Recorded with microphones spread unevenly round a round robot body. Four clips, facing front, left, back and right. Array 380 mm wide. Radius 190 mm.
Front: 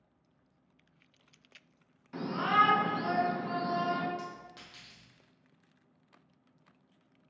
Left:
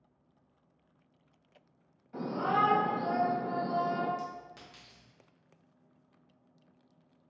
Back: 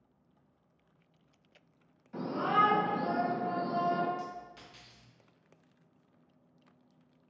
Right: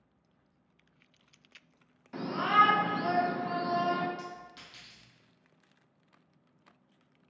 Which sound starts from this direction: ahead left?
A clink, at 4.2 s.